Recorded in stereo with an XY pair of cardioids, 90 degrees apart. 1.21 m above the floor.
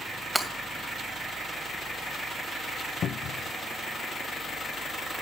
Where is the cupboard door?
70° left, 0.5 m.